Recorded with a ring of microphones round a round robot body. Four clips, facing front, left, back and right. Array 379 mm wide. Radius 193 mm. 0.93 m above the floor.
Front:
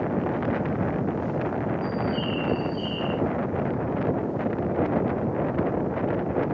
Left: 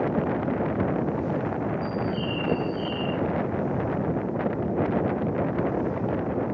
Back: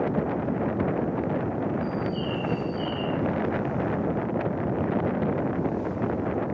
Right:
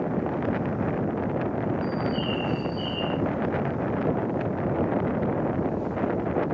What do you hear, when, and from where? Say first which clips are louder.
1.8 s a bird: right 1 dB, front 2 dB; 10° right, 3.5 m